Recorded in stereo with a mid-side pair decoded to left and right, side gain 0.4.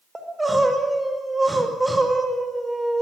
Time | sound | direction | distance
0.1 | crying | 15° right | 5 m